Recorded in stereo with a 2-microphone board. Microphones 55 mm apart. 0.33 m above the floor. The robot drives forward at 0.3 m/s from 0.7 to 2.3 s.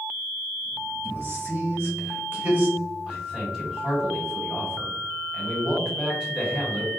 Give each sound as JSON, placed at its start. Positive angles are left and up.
{"t": 1.0, "sound": "a man speaking", "side_deg": -40, "distance_m": 1.1}
{"t": 3.1, "sound": "a man speaking", "side_deg": -15, "distance_m": 1.9}